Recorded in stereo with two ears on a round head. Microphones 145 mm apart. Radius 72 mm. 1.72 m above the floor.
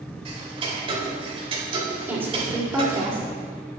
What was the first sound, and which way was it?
Ticking, 35° right (ahead or behind).